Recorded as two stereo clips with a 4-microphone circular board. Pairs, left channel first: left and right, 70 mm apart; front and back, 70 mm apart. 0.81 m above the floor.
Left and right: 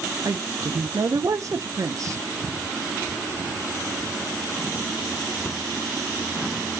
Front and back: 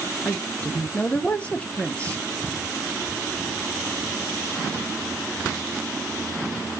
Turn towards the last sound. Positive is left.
turn(degrees=-65)